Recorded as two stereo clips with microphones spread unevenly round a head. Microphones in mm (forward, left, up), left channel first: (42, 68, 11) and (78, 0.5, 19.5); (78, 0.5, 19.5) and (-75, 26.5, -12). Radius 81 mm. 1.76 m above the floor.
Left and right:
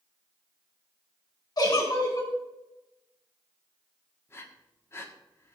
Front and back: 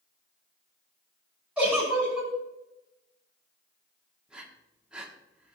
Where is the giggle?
85° left, 5.5 m.